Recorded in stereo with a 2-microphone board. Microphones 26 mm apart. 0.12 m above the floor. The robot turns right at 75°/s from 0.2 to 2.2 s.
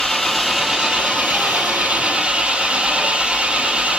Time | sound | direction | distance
0.0 | an engine running | 170° left | 1.8 m